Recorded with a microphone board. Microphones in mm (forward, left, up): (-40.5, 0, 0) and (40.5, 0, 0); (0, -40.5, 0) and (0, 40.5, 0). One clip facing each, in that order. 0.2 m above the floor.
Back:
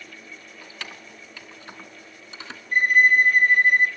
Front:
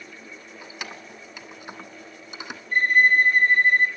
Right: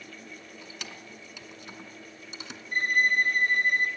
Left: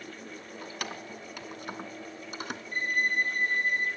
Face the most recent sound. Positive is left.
turn(degrees=-105)